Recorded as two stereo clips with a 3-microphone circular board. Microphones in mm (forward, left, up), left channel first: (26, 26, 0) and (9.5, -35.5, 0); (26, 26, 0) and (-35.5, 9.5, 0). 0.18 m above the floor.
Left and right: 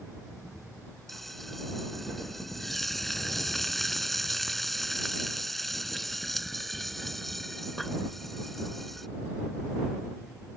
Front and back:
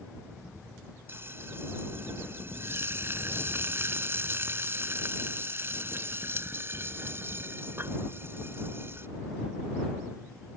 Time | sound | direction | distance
1.1 | frying | 160° left | ?